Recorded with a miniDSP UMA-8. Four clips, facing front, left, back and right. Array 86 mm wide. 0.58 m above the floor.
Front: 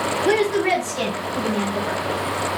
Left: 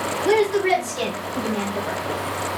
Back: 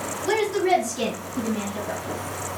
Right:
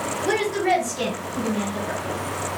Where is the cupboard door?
No cupboard door in this recording.